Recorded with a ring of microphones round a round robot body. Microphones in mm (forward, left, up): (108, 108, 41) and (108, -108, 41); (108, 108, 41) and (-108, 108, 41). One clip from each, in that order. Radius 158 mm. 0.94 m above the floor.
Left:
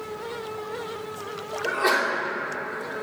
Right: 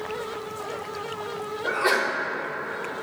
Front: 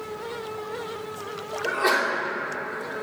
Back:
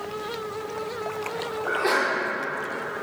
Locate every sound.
1.6 s a sneeze: 30° left, 3.5 m